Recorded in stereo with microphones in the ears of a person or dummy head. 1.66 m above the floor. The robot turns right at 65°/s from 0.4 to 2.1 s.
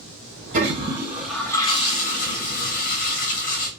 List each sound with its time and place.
0.5 s a toilet flushing: 40° right, 1.5 m; by 3.7 s 60° left, 1.5 m